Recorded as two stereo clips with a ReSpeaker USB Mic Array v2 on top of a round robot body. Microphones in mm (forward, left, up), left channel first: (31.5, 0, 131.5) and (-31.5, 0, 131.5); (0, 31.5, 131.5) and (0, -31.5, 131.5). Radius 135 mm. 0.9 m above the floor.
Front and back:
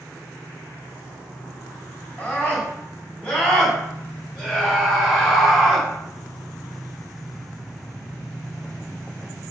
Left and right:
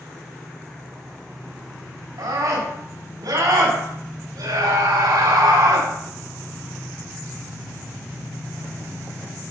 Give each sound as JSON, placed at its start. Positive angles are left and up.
{"t": 2.2, "sound": "a scream", "azimuth_deg": -75, "distance_m": 6.5}